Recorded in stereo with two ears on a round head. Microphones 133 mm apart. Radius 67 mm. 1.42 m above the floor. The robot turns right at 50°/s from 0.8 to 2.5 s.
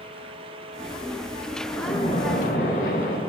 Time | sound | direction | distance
1.7 | a splash | 20° left | 1.5 m